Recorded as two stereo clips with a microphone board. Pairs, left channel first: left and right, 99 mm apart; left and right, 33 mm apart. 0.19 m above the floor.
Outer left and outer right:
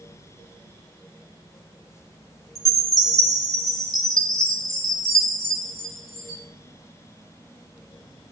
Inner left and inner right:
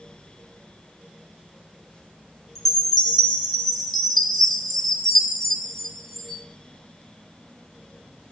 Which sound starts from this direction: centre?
A chime, at 2.5 s.